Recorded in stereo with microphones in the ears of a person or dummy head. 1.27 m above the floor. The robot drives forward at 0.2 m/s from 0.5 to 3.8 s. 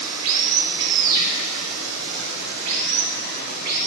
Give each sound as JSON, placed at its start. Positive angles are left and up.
{"t": 0.0, "sound": "running water", "side_deg": -75, "distance_m": 0.9}